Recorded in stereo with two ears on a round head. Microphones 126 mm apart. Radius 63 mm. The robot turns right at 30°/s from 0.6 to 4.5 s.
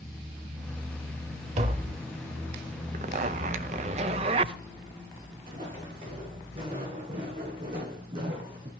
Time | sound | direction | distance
1.6 | tapping | 50° right (ahead or behind) | 1.0 m
2.9 | a zipper | 95° right | 0.7 m
5.5 | footsteps | 40° right (ahead or behind) | 5 m